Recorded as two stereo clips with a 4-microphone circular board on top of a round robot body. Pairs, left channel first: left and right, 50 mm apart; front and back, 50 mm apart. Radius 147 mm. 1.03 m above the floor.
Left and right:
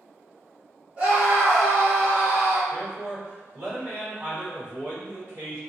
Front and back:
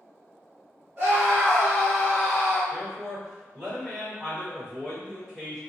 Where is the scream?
135° right, 1.8 m.